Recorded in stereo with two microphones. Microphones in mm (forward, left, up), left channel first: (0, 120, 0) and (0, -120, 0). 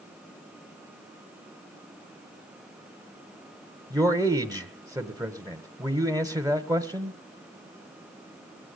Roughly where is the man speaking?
Centre.